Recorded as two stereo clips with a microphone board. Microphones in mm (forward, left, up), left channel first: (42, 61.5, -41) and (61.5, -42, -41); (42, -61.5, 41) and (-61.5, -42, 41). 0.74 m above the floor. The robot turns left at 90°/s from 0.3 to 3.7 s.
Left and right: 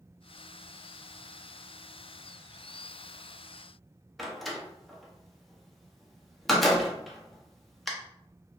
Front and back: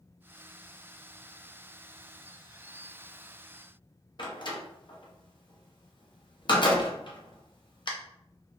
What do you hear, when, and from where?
4.2 s a door slam: 10° left, 0.6 m